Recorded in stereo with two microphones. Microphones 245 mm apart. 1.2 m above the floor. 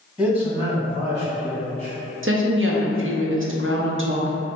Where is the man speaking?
5° right (ahead or behind), 2.0 m; by 1.9 s 40° right (ahead or behind), 2.5 m.